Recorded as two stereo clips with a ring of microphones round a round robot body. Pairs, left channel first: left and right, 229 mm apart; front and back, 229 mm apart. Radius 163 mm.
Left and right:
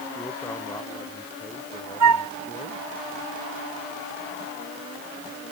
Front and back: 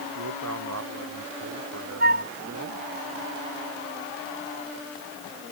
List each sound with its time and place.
0.1 s a man speaking: 175° left; by 2.8 s 165° left
2.0 s a flute: 115° right